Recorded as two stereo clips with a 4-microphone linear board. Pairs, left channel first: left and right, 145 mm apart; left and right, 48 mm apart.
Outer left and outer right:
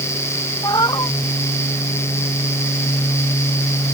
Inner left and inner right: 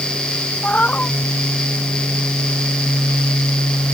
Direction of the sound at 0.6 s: 30° left (ahead or behind).